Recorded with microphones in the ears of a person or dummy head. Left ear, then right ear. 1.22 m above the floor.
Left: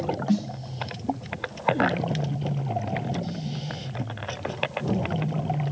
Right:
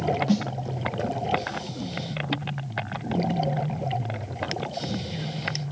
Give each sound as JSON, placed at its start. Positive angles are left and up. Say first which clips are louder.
{"t": 0.3, "sound": "a snare drum", "louder": "right 1 dB", "side_deg": -20, "distance_m": 0.7}